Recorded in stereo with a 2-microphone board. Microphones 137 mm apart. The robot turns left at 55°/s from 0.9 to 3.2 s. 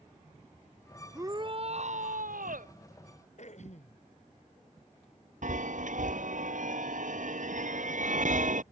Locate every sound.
1.1 s a shout: 20° right; by 2.7 s 110° right
3.4 s throat clearing: 60° left (ahead or behind)
5.4 s a chime: 70° right (ahead or behind)